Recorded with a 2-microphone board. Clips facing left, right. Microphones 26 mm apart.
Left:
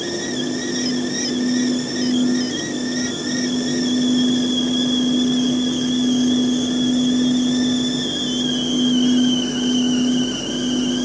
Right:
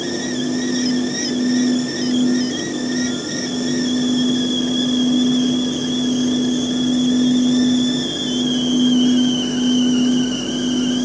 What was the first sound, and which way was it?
Only background noise.